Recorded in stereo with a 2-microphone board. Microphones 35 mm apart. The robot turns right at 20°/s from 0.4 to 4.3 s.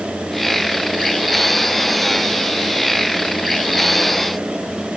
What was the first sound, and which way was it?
Only background noise.